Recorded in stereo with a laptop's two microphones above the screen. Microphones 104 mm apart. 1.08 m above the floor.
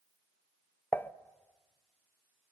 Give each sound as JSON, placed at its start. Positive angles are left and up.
{"t": 0.9, "sound": "dishes clattering", "side_deg": 20, "distance_m": 0.7}